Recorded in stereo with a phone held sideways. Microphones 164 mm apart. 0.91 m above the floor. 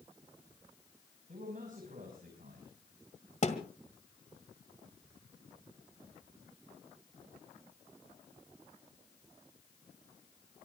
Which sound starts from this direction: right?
A man speaking, at 1.3 s.